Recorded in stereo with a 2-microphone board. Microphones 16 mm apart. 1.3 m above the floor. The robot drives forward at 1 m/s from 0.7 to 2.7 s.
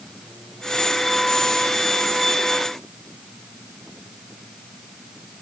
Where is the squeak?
I don't hear a squeak.